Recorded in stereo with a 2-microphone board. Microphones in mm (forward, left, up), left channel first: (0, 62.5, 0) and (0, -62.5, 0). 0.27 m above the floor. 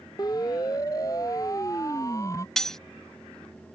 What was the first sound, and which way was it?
A siren, 30° left (ahead or behind).